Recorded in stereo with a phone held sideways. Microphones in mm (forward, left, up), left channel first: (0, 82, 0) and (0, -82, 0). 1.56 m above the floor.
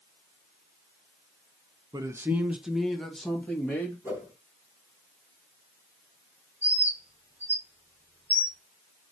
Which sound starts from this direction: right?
A man speaking, at 1.9 s.